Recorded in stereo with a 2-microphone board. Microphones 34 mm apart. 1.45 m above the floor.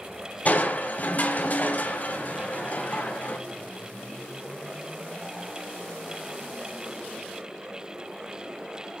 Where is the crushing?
50° left (ahead or behind), 3.5 m.